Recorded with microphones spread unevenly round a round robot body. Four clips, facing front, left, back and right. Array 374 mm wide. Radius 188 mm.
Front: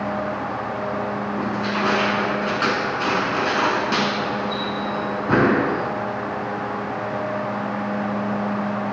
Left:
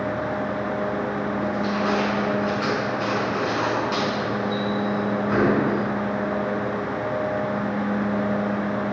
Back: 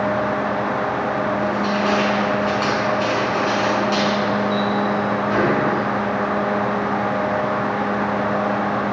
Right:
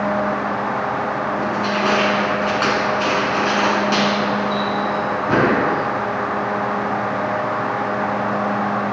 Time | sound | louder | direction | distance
1.4 | crushing | right 3 dB, back 3 dB | 25° right | 6.5 m